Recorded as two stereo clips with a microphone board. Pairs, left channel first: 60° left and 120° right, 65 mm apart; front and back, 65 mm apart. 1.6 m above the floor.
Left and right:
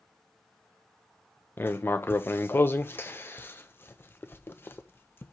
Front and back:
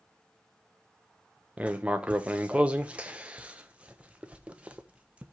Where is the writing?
110° left, 0.6 m.